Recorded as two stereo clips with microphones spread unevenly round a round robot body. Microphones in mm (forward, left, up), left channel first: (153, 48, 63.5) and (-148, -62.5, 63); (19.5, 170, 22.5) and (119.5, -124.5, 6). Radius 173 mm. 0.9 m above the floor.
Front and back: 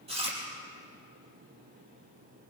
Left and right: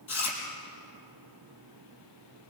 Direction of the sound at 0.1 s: 125° left.